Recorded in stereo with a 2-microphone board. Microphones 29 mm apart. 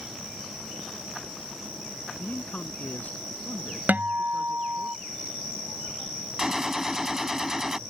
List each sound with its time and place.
2.2 s a man speaking: 65° left (ahead or behind)
3.9 s a guitar: 75° right (ahead or behind)
6.4 s a gunshot: 15° right (ahead or behind)